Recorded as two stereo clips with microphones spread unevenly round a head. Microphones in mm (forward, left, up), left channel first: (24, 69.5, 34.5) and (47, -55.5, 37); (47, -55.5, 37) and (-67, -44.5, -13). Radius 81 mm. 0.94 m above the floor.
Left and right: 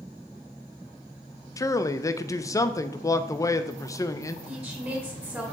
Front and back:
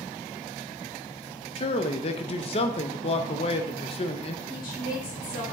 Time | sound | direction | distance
1.6 | a man speaking | 50° left | 0.6 m
4.5 | a woman speaking | 5° left | 2.5 m